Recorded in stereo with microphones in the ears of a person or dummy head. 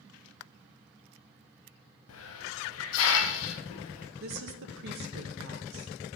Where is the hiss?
75° left (ahead or behind), 0.8 m.